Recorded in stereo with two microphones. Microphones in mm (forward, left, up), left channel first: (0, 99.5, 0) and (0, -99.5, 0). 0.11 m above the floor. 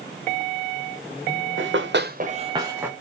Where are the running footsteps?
85° right, 1.1 m; by 2.9 s 5° right (ahead or behind), 1.5 m.